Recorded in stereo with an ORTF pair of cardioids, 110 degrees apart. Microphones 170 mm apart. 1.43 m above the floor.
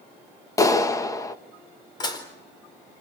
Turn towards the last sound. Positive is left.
turn(degrees=25)